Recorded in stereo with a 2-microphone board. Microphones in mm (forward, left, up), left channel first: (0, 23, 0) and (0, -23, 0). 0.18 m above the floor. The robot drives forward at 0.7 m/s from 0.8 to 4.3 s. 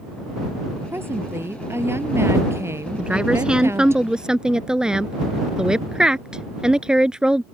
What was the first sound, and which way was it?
A woman speaking, 55° right (ahead or behind).